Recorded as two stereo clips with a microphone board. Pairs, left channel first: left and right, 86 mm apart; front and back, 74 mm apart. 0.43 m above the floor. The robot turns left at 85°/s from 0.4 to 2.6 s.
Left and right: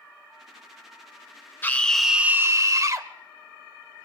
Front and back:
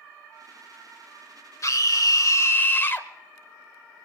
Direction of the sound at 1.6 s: 30° left.